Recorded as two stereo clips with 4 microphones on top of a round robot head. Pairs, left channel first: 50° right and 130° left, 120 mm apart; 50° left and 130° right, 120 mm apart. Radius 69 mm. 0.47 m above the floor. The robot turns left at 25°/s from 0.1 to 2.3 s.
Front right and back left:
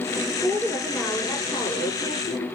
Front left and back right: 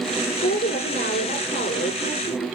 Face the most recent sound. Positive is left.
turn(degrees=0)